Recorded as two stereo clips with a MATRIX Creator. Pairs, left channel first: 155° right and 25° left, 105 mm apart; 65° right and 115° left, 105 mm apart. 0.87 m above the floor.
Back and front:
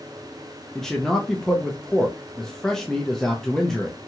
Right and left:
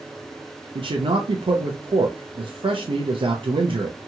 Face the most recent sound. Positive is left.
turn(degrees=120)